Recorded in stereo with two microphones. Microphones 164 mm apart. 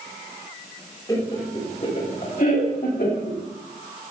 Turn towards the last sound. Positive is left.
turn(degrees=75)  # may be behind; listen again after turning